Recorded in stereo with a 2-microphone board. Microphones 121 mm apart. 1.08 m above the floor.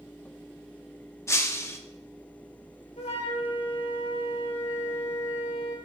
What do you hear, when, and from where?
1.3 s breaking glass: 20° left (ahead or behind), 0.9 m
3.0 s a flute: 65° left (ahead or behind), 3 m